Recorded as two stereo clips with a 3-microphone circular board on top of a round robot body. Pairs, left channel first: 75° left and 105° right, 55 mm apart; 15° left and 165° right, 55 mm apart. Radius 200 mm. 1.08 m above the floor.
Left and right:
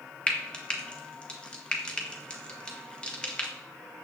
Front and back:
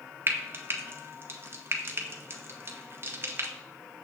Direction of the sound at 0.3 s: 150° left.